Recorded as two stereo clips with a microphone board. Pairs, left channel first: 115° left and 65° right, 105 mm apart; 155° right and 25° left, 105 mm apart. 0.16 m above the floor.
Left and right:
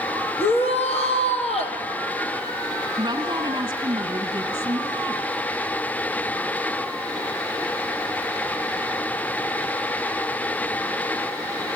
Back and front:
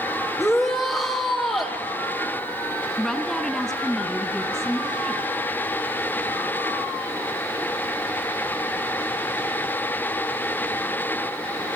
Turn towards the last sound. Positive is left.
turn(degrees=-65)